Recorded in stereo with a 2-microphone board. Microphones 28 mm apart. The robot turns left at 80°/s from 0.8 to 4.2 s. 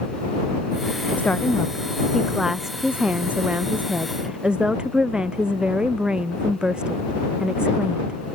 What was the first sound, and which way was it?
A woman speaking, 95° left.